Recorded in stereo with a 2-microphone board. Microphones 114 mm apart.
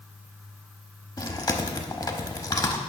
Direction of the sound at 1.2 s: 35° left (ahead or behind).